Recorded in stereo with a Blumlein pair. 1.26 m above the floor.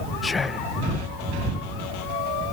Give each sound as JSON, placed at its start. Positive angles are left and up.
{"t": 0.2, "sound": "whispering", "azimuth_deg": 15}